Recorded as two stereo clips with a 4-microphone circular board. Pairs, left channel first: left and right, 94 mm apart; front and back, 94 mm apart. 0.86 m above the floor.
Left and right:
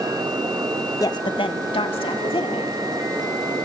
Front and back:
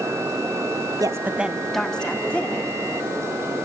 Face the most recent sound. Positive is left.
turn(degrees=70)